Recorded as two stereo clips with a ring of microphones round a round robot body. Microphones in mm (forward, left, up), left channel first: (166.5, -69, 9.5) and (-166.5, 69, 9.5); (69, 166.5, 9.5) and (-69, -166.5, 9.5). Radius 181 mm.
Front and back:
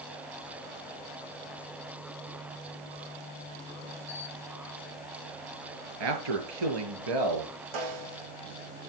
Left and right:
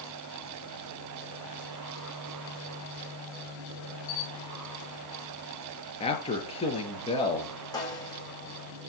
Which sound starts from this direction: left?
A camera shutter, at 4.1 s.